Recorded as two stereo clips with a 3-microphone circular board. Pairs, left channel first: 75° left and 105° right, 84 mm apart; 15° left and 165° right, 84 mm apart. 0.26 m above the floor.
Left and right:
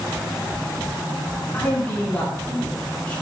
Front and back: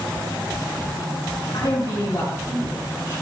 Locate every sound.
1.5 s a man speaking: 5° left, 3 m; by 3.2 s straight ahead, 4 m